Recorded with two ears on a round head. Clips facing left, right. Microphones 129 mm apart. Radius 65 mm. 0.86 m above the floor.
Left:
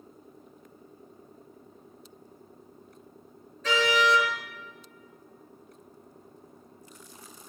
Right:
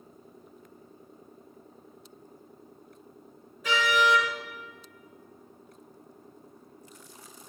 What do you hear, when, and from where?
3.6 s a car horn: 10° right (ahead or behind), 9 m